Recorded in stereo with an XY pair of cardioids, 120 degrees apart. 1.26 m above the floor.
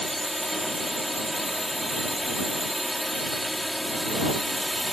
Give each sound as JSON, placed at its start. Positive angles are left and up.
{"t": 0.0, "sound": "a drone", "azimuth_deg": 0}